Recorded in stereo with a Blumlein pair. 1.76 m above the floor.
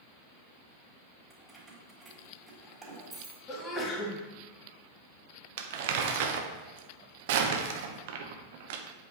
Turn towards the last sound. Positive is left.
turn(degrees=-50)